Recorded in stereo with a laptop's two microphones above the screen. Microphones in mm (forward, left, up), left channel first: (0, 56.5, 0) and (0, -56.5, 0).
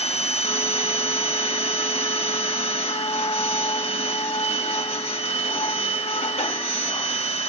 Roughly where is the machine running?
Left.